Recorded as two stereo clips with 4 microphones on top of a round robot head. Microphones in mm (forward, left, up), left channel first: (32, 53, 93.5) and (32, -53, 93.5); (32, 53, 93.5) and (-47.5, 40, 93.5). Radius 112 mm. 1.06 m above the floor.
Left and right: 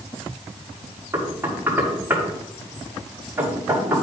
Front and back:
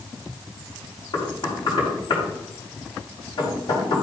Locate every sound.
1.1 s knocking: 20° right, 4.5 m